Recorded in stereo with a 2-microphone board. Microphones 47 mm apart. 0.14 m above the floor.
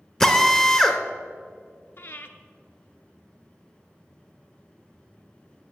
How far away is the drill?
About 0.7 m.